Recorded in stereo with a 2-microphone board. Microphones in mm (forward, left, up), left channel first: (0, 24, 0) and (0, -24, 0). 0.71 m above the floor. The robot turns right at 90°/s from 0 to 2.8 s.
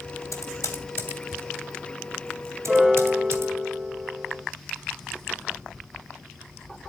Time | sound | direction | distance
0.3 | typing on a keyboard | 65° left (ahead or behind) | 2.5 m
2.7 | a piano | 10° right (ahead or behind) | 1.2 m